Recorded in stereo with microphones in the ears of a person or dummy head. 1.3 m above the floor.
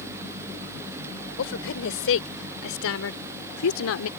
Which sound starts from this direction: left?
A woman speaking, at 1.4 s.